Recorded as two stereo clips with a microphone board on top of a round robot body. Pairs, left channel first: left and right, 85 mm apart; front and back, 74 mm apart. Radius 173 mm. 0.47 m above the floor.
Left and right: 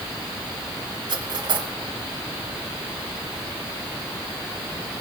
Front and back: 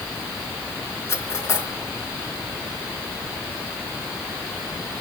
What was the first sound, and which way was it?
Cutlery clinking, 55° right.